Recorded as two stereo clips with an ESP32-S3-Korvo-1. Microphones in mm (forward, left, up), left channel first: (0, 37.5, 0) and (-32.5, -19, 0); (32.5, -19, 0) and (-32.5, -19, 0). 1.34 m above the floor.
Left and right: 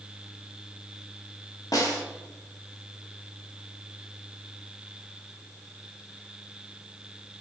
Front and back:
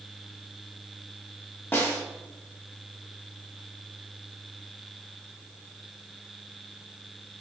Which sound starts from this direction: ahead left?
A snare drum, at 1.7 s.